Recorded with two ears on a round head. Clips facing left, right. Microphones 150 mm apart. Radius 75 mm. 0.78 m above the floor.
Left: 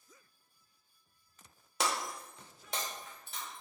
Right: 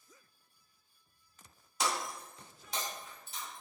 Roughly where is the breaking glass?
Left.